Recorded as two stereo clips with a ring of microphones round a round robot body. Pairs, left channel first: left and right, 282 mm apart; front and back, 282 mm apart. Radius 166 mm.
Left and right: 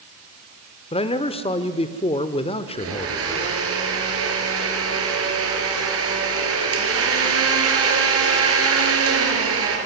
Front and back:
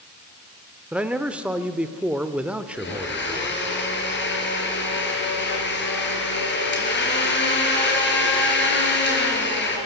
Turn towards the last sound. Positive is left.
turn(degrees=-50)